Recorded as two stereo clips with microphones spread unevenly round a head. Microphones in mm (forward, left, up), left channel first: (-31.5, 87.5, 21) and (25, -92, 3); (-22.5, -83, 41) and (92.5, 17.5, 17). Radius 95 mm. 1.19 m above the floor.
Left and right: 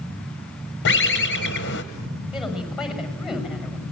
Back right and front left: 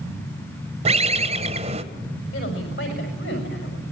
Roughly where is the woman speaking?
Behind.